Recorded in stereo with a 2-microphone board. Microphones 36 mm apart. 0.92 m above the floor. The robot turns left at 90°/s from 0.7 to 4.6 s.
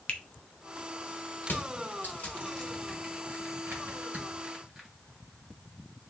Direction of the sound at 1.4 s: 65° left (ahead or behind).